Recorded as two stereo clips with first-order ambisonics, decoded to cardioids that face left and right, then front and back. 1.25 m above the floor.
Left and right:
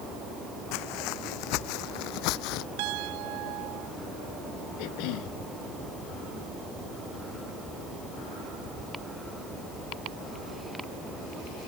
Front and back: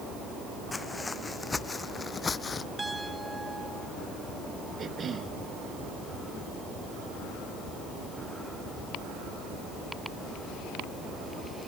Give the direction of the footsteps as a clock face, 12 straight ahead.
9 o'clock.